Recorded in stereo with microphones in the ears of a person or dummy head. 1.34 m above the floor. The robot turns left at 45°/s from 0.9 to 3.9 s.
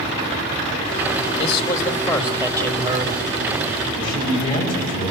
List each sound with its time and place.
1.4 s a man speaking: 30° left, 1.7 m; by 3.1 s 50° right, 1.7 m
4.0 s a man speaking: 40° left (ahead or behind), 8 m